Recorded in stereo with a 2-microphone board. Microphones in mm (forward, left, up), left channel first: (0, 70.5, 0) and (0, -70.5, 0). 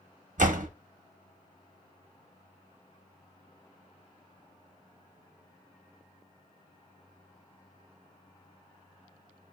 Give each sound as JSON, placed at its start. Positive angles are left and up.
{"t": 0.4, "sound": "a door slam", "side_deg": -65, "distance_m": 0.6}